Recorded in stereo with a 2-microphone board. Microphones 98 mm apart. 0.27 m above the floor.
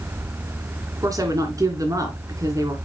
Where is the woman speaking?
35° right (ahead or behind), 2.5 m.